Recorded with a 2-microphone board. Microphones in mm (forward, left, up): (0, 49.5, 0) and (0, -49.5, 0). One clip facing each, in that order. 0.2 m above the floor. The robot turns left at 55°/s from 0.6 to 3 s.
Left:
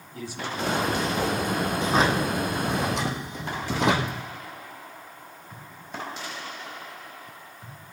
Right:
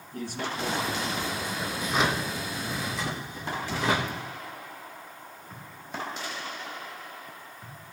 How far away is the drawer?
About 3 m.